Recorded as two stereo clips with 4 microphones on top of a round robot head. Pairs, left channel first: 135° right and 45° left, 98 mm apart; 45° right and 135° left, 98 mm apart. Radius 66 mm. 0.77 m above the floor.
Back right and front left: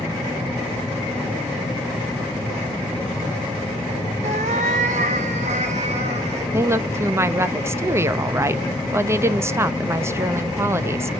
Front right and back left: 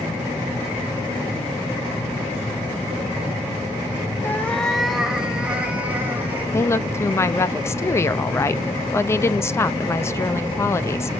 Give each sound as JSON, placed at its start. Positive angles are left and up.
{"t": 4.2, "sound": "a cat meowing", "azimuth_deg": 25, "distance_m": 0.6}
{"t": 6.5, "sound": "a woman speaking", "azimuth_deg": 0, "distance_m": 0.7}